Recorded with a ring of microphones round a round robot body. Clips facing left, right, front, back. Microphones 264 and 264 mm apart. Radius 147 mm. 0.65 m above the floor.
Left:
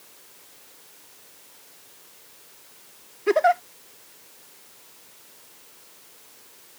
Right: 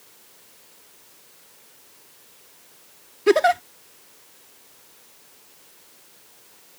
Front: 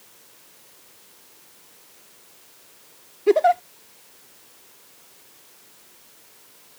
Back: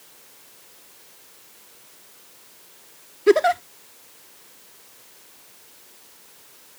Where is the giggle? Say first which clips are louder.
Right 4 dB, back 2 dB; 115° right.